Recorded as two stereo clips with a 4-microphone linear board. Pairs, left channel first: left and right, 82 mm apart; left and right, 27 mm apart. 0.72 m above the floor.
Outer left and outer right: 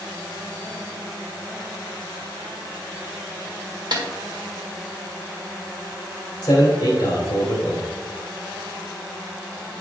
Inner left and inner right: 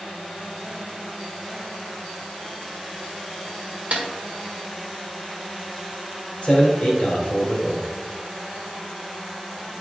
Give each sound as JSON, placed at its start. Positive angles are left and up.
{"t": 3.9, "sound": "a snare drum", "side_deg": -60, "distance_m": 1.7}
{"t": 6.4, "sound": "a man speaking", "side_deg": 50, "distance_m": 2.5}